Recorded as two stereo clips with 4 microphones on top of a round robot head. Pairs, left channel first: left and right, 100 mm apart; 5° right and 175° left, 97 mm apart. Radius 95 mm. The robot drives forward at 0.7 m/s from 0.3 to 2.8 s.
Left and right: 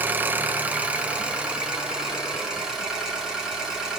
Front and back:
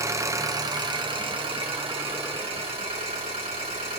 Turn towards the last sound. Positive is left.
turn(degrees=-175)